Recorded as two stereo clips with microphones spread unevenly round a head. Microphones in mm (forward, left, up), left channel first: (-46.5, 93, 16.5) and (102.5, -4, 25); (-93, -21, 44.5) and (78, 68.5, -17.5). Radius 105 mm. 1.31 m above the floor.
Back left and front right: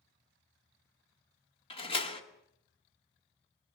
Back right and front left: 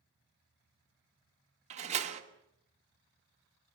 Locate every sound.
1.7 s a door slam: 90° left, 2 m